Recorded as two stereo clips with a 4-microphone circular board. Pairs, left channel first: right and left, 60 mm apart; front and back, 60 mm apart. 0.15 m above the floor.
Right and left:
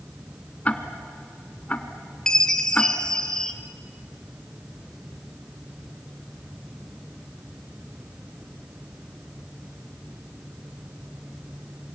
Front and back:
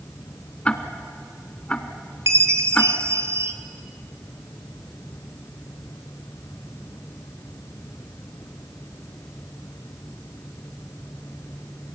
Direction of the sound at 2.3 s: 165° right.